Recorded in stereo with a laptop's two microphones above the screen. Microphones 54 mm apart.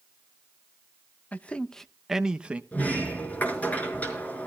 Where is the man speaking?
25° left (ahead or behind), 0.8 m; by 2.6 s 25° right (ahead or behind), 0.8 m.